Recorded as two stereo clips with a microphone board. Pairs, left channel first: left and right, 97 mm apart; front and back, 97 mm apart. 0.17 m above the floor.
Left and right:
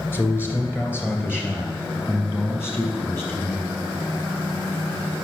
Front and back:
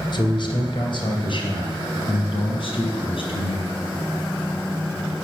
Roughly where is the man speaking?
Ahead left.